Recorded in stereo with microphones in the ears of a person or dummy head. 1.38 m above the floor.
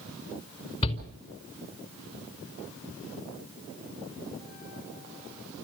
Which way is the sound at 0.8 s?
35° left (ahead or behind).